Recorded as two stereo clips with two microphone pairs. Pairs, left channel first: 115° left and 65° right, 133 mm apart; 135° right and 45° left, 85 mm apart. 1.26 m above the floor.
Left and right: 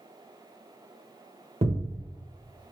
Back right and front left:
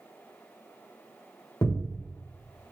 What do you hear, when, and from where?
1.6 s a thud: 95° right, 1.2 m